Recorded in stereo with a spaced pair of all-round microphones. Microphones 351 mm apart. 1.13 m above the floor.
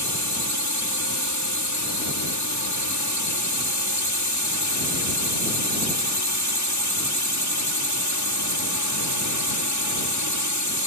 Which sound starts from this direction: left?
A drone, at 0.0 s.